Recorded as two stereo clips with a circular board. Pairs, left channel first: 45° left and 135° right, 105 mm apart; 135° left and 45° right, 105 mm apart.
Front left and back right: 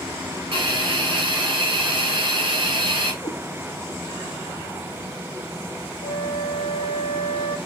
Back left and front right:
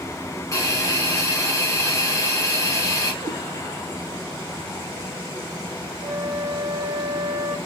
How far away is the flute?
About 0.5 m.